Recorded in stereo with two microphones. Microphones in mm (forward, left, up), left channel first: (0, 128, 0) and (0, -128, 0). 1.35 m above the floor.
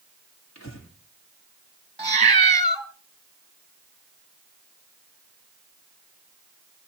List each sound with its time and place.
0.6 s breathing: 75° left (ahead or behind), 3.5 m
2.0 s a cat meowing: 25° right (ahead or behind), 1.3 m